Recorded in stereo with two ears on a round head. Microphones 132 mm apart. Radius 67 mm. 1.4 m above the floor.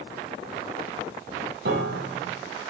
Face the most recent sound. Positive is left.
turn(degrees=-75)  # may be behind; listen again after turning